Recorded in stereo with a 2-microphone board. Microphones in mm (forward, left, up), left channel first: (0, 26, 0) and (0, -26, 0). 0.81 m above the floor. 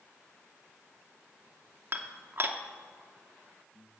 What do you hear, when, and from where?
1.9 s dishes clattering: 45° right (ahead or behind), 0.7 m